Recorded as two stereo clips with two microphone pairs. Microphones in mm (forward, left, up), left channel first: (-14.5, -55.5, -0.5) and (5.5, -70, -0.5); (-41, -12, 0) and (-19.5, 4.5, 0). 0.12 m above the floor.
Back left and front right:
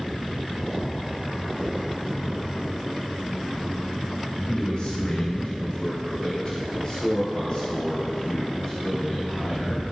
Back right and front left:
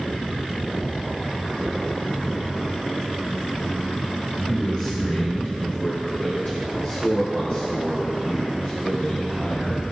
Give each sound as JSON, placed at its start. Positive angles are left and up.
{"t": 4.5, "sound": "a man speaking", "azimuth_deg": 170, "distance_m": 2.5}